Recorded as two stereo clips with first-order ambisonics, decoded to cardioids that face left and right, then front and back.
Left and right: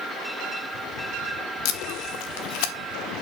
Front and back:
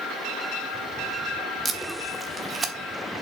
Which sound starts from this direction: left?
Tape being pulled, at 1.6 s.